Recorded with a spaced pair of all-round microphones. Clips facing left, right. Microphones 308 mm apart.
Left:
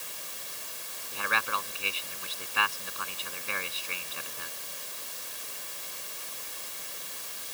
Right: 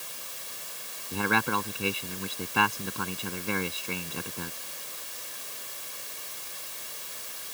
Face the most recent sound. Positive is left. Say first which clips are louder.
# right 10 dB
turn(degrees=-60)  # may be behind; listen again after turning